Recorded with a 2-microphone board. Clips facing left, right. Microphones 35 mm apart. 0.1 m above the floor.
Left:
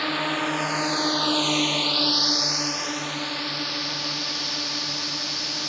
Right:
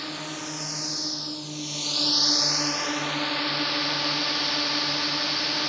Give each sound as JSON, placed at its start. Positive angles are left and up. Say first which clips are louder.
{"t": 0.0, "sound": "a drone", "louder": "left 9 dB", "side_deg": 35}